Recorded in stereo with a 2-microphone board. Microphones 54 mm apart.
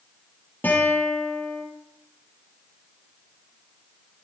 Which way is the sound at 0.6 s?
40° left (ahead or behind).